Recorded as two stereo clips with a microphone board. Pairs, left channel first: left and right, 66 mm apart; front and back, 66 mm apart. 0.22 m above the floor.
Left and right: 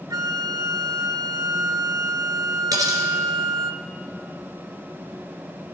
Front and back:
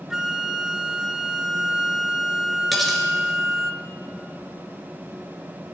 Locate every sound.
0.1 s a flute: 95° right, 0.6 m
2.7 s cutlery clinking: 90° right, 2 m